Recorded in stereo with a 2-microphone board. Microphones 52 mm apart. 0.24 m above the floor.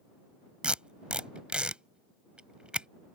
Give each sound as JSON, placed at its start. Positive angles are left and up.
{"t": 0.6, "sound": "tape being pulled", "side_deg": -25}